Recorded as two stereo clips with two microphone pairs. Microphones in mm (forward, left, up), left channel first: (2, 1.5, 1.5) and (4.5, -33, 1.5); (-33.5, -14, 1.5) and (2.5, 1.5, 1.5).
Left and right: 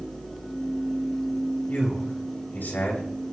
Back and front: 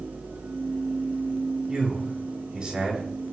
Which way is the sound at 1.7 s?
90° left.